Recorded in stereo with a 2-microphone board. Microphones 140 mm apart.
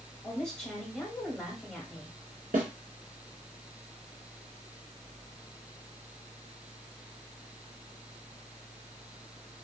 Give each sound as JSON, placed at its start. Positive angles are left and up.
{"t": 0.2, "sound": "a woman speaking", "side_deg": 5, "distance_m": 1.1}
{"t": 2.5, "sound": "a snare drum", "side_deg": -80, "distance_m": 1.2}